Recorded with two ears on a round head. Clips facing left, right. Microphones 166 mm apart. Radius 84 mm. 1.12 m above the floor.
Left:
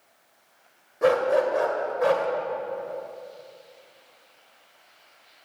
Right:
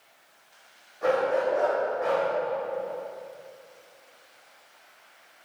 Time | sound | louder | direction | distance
1.0 | a dog barking | left 3 dB | 60° left (ahead or behind) | 1.8 m